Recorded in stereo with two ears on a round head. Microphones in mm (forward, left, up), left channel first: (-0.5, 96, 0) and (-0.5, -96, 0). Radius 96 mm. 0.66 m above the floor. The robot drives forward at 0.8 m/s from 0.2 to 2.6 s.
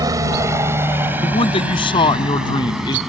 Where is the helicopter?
15° right (ahead or behind); by 3.1 s centre (ahead or behind).